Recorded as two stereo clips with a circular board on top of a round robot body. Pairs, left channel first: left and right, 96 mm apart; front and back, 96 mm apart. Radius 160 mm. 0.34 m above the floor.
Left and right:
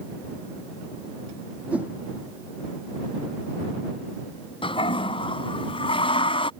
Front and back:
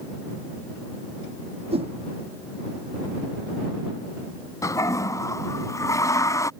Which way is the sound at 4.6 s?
60° left.